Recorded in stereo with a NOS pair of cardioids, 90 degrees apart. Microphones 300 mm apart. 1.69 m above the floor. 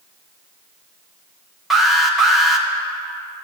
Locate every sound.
1.7 s an alarm: straight ahead, 1.7 m